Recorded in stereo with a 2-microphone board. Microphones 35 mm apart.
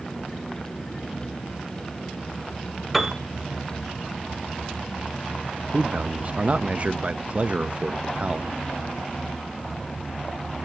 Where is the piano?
Centre (ahead or behind), 1.0 m.